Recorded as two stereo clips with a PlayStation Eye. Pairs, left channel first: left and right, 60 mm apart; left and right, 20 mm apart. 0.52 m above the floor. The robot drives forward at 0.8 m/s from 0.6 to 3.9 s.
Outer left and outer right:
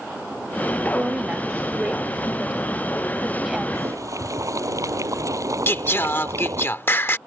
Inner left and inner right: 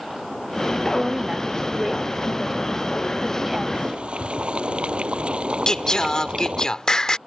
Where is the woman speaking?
25° right (ahead or behind); by 3.6 s 10° right (ahead or behind).